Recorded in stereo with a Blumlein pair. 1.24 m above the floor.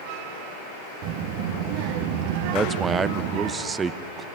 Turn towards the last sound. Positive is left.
turn(degrees=-15)